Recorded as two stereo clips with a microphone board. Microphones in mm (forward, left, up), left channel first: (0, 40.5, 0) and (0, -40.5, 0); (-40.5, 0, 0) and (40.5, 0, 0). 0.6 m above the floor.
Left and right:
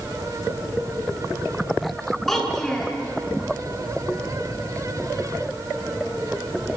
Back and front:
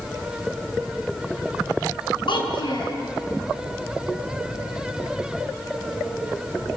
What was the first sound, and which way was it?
A child speaking, 175° left.